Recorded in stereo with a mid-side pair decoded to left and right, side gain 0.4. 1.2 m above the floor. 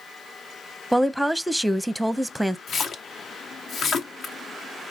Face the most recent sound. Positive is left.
turn(degrees=65)